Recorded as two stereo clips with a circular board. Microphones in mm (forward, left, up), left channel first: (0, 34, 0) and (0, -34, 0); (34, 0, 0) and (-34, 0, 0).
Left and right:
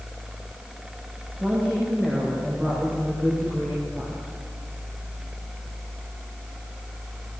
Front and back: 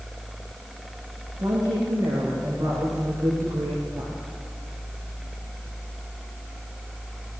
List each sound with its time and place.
1.4 s a woman speaking: 160° right, 7.5 m; by 4.1 s 145° right, 7.5 m